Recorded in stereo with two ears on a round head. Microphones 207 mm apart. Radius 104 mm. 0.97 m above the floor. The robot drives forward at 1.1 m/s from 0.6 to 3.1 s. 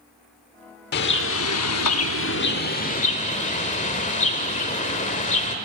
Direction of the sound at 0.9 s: 45° left (ahead or behind).